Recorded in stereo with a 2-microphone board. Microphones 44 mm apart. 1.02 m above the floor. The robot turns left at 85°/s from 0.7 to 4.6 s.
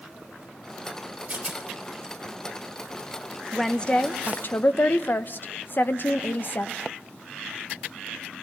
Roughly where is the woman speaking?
Behind.